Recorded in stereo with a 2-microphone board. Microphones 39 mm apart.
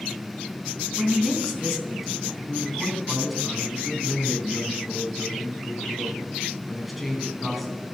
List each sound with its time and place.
1.0 s a woman speaking: 5° right (ahead or behind), 3.5 m
2.5 s a man speaking: centre (ahead or behind), 3 m